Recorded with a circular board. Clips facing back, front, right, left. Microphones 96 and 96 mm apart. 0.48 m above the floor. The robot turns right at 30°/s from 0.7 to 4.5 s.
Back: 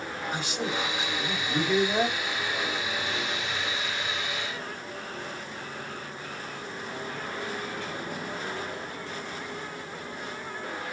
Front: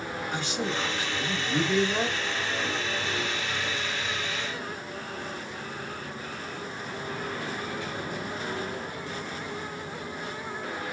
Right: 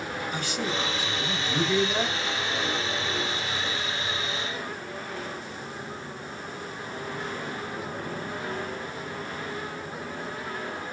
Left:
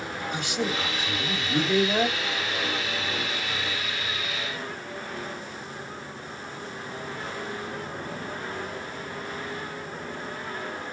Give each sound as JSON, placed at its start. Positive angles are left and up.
{"t": 0.3, "sound": "a man speaking", "azimuth_deg": 100, "distance_m": 3.0}